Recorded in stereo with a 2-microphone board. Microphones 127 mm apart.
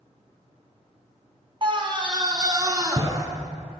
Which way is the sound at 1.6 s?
40° right (ahead or behind).